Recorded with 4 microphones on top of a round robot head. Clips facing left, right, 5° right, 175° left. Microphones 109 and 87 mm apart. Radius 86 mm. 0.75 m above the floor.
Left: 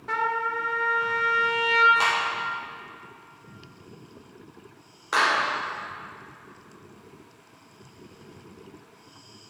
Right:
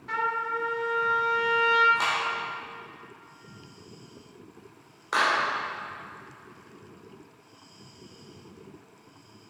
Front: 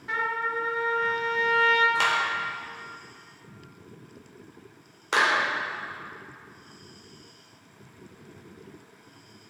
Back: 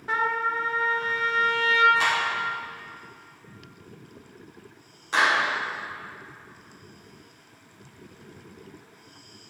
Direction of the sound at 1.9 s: Straight ahead.